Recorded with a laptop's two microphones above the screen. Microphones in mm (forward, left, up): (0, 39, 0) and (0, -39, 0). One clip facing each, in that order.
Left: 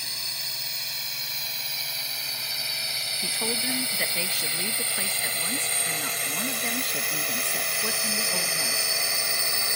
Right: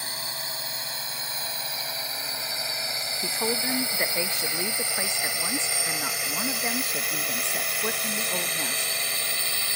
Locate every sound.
0.0 s a drone: 35° right (ahead or behind); by 9.8 s 15° left (ahead or behind)
3.2 s a woman speaking: 20° right (ahead or behind)